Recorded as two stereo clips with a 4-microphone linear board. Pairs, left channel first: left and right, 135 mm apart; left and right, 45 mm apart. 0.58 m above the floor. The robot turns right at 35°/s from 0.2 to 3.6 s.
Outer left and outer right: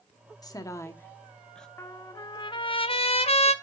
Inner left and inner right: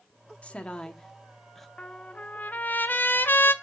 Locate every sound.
0.4 s a woman speaking: 30° left (ahead or behind), 1.1 m; by 1.7 s 5° left (ahead or behind), 1.1 m
1.8 s a trumpet: 30° left, 0.8 m; by 3.5 s 90° left, 0.8 m